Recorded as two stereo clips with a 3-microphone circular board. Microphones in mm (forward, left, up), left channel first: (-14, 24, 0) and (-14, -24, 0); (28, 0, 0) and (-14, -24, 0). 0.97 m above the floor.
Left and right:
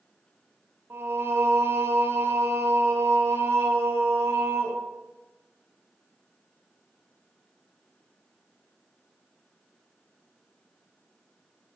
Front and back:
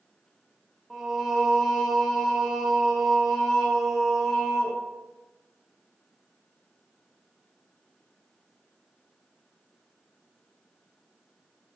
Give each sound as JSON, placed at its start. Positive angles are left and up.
{"t": 0.9, "sound": "singing", "azimuth_deg": -65, "distance_m": 0.6}